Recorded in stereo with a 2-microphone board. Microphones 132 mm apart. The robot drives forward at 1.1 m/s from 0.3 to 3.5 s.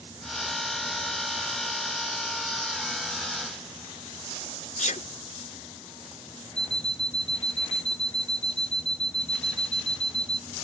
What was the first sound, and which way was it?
A sneeze, 70° left (ahead or behind).